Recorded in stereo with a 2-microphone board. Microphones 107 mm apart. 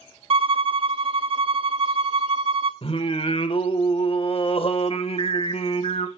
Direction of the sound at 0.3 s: 60° right (ahead or behind).